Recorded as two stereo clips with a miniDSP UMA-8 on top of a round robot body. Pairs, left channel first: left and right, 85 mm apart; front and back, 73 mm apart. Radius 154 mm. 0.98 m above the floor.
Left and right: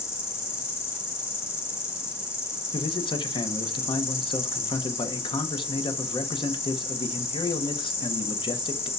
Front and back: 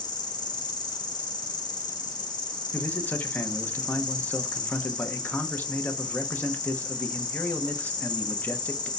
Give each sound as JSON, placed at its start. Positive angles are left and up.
{"t": 0.0, "sound": "an insect", "azimuth_deg": 25, "distance_m": 1.5}
{"t": 2.7, "sound": "a man speaking", "azimuth_deg": 65, "distance_m": 1.0}